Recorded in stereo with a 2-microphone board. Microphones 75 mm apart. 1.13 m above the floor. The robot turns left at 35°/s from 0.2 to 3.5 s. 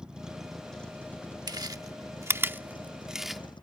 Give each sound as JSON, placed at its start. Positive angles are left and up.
{"t": 0.0, "sound": "a vehicle", "side_deg": -10}
{"t": 1.5, "sound": "chewing", "side_deg": -60}